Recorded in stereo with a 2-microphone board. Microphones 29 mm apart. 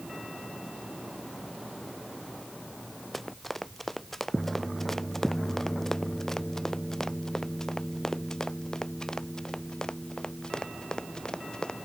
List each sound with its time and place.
3.1 s running footsteps: 5° left (ahead or behind); by 11.8 s 30° left (ahead or behind)